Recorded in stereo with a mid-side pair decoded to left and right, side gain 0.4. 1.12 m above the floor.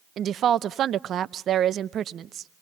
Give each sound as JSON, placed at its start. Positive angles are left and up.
{"t": 0.2, "sound": "a woman speaking", "azimuth_deg": -65, "distance_m": 0.6}